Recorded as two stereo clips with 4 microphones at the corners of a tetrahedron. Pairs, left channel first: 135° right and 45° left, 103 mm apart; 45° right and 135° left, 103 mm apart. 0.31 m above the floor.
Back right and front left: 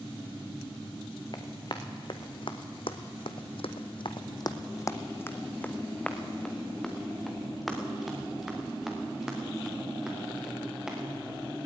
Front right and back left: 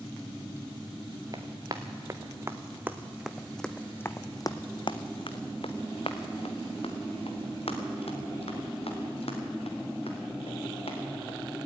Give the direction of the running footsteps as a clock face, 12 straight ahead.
6 o'clock.